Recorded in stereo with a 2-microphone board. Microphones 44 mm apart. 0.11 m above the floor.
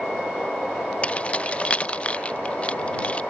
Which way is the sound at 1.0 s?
30° left (ahead or behind).